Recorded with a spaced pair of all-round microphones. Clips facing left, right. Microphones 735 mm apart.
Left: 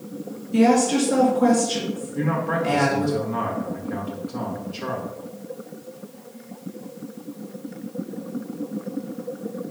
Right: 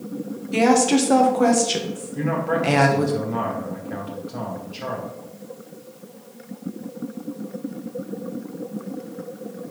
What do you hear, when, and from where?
0.5 s a woman speaking: 75° right (ahead or behind), 1.7 m
2.1 s a man speaking: 15° right (ahead or behind), 1.9 m